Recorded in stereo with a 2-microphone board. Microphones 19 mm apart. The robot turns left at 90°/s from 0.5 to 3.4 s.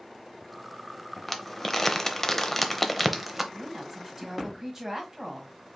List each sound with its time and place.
1.3 s crumpling: 5° left (ahead or behind), 0.7 m; by 3.4 s 10° right (ahead or behind), 0.7 m
3.5 s a woman speaking: 20° right (ahead or behind), 1.5 m